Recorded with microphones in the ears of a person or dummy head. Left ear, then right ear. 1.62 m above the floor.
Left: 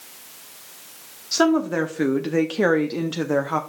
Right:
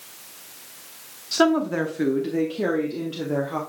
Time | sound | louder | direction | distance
1.3 | a woman speaking | left 1 dB | 10° left (ahead or behind) | 1.0 m